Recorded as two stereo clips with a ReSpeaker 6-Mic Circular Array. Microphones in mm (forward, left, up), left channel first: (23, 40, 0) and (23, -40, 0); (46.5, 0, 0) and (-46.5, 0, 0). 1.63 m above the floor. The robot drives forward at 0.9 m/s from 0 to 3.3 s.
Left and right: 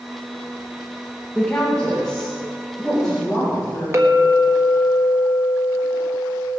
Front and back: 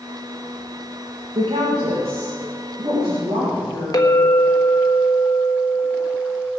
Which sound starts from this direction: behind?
A woman speaking, at 1.4 s.